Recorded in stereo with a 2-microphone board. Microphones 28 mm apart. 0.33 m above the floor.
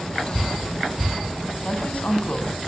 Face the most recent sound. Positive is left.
turn(degrees=60)  # may be behind; listen again after turning